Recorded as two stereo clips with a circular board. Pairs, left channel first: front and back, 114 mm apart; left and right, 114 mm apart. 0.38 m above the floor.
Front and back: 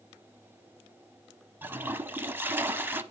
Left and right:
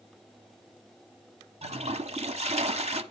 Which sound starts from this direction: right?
A toilet flushing, at 1.6 s.